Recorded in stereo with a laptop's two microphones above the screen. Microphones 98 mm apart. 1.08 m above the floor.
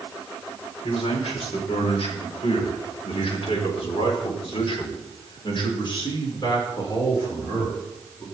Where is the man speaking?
80° left, 5 m; by 8.2 s 35° left (ahead or behind), 4.5 m.